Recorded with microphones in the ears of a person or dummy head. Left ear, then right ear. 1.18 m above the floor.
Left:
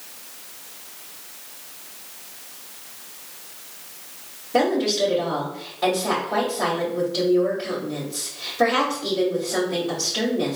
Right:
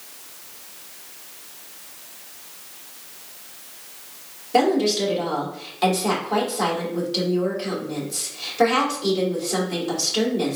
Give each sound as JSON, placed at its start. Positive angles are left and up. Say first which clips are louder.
{"t": 4.5, "sound": "a woman speaking", "louder": "right 1 dB", "side_deg": -75, "distance_m": 2.5}